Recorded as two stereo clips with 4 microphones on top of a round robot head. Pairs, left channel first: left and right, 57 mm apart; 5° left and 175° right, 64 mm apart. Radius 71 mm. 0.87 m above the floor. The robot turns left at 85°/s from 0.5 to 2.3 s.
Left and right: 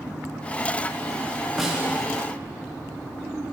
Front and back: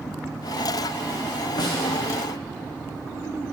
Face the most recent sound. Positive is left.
turn(degrees=-60)